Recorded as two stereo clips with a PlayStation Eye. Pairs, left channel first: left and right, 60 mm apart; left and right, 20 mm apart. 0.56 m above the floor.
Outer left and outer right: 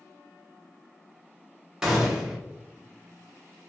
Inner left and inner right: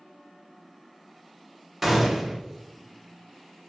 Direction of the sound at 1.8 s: 10° right (ahead or behind).